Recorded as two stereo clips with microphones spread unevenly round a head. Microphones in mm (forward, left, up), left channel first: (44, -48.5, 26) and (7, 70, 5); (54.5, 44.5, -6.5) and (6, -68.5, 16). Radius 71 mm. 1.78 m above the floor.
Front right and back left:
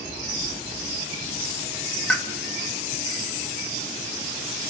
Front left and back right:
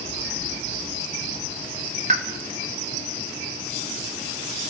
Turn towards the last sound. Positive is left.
turn(degrees=-155)